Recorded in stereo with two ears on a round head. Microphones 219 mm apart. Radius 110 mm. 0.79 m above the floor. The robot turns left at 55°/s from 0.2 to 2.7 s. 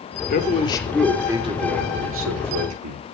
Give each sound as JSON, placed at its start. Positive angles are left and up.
{"t": 0.3, "sound": "a man speaking", "azimuth_deg": 40, "distance_m": 2.5}